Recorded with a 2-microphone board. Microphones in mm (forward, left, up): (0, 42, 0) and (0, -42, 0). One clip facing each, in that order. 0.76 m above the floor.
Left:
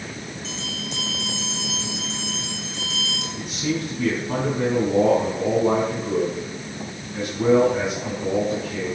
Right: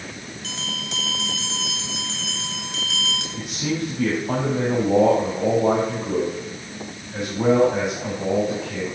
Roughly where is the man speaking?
Right.